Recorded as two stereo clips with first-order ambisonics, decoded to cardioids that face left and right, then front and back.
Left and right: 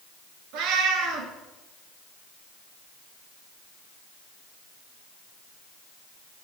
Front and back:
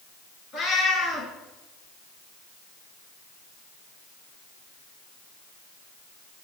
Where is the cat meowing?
60° right, 1.9 m.